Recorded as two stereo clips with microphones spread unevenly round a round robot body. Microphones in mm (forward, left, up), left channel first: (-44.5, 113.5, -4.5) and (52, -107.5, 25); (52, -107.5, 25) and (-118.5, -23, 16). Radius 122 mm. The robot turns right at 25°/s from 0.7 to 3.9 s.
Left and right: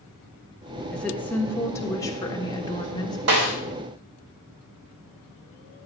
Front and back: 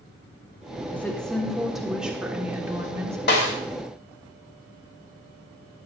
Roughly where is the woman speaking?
Ahead left.